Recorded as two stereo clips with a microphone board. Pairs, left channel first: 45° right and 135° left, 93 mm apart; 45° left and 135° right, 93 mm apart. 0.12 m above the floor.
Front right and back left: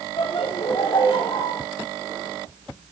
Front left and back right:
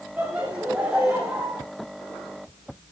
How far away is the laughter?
About 3 m.